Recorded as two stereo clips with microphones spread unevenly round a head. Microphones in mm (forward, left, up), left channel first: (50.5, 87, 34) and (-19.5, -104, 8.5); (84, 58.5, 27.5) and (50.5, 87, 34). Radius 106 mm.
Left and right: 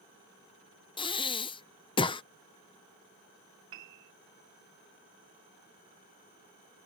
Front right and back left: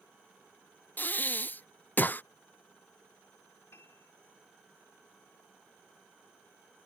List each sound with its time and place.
1.0 s breathing: straight ahead
3.7 s a piano: 85° right